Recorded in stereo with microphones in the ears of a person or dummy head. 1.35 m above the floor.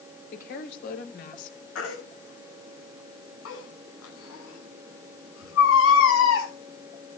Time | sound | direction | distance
0.3 | a woman speaking | 55° left (ahead or behind) | 4 m
1.8 | a baby crying | 85° left | 8 m